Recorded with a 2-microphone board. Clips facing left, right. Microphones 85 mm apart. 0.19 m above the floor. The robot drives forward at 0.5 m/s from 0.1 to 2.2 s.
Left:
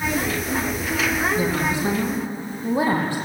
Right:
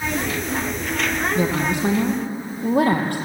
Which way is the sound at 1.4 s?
65° right (ahead or behind).